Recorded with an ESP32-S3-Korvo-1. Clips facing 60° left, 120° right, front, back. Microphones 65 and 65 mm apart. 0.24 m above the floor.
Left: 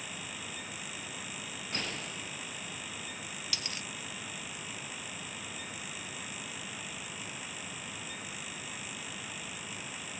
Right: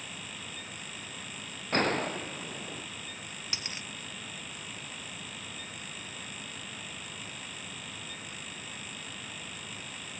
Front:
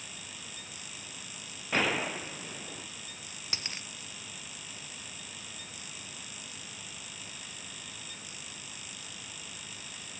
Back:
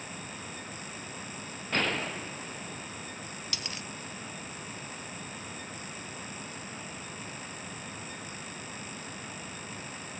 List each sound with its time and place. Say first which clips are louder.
1.7 s a gunshot: right 12 dB, front 1 dB; 80° right
3.5 s a dropped coin: right 1 dB, front 1 dB; 55° right